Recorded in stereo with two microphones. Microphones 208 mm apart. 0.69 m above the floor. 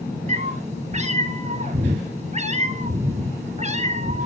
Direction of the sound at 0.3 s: 35° right (ahead or behind).